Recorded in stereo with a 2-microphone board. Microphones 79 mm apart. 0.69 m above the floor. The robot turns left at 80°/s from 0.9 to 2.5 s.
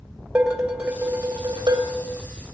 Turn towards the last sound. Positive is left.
turn(degrees=-140)